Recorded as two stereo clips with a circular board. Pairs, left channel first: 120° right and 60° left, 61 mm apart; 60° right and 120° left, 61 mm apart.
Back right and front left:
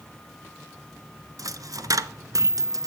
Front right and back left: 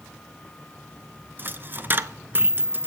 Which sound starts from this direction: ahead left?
A dropped coin, at 1.4 s.